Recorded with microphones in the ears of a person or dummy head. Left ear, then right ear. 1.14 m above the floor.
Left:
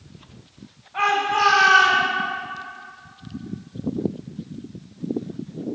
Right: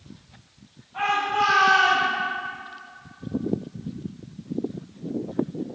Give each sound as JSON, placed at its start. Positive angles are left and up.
{"t": 0.9, "sound": "a shout", "side_deg": 70, "distance_m": 2.5}